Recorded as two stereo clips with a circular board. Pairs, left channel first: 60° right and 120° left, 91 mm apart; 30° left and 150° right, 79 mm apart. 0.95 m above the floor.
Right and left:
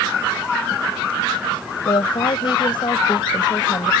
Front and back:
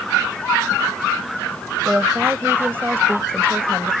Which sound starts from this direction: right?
A woman speaking, at 1.9 s.